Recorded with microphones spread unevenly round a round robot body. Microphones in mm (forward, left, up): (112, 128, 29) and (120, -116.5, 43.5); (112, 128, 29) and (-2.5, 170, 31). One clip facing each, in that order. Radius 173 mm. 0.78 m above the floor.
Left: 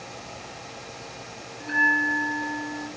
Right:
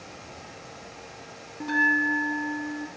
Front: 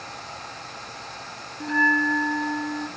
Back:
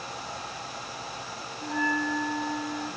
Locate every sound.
1.6 s a bell: 50° right, 1.8 m